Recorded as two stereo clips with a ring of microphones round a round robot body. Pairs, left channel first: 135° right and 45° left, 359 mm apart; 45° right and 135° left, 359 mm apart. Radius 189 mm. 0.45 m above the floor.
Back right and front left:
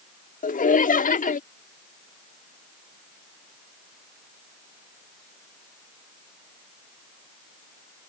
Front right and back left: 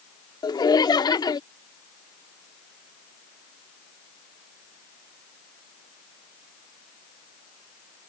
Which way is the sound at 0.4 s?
110° right.